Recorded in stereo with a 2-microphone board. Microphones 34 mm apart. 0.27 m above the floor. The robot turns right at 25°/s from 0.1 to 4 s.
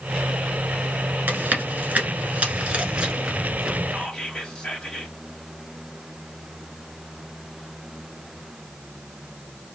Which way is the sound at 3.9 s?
20° left (ahead or behind).